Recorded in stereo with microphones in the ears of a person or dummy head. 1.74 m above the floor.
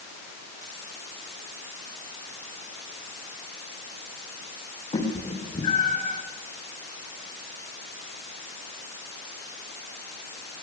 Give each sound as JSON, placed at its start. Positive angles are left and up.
{"t": 4.9, "sound": "a cat meowing", "side_deg": 35, "distance_m": 10.0}